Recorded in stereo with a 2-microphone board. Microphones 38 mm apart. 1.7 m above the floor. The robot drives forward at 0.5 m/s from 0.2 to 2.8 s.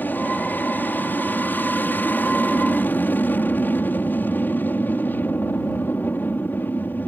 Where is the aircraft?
55° left (ahead or behind).